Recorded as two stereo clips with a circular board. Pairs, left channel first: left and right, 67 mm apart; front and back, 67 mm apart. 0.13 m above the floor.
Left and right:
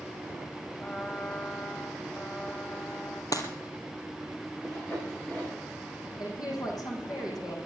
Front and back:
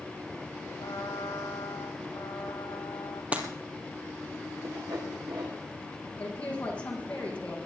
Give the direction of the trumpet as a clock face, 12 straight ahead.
11 o'clock.